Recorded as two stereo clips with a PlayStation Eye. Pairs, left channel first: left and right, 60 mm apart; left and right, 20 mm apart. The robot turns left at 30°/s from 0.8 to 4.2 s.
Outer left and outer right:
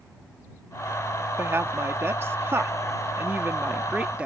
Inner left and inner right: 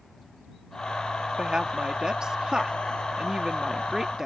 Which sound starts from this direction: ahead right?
A woman speaking, at 1.4 s.